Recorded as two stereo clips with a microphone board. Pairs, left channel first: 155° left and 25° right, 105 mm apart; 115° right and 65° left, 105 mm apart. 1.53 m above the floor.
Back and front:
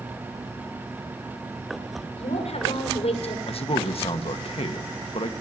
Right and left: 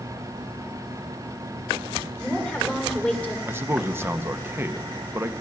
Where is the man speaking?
135° left, 1.4 m.